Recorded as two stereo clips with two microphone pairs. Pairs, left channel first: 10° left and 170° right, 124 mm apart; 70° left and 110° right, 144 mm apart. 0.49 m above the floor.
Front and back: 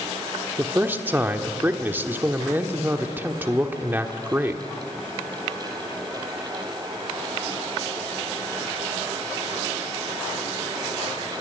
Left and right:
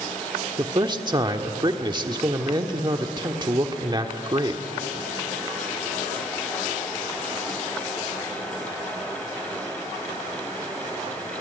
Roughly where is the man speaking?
Right.